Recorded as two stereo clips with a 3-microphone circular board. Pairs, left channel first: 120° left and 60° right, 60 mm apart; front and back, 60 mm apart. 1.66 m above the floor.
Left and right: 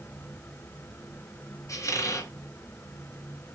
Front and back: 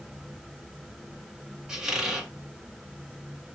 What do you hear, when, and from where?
1.7 s a squeak: 100° left, 1.4 m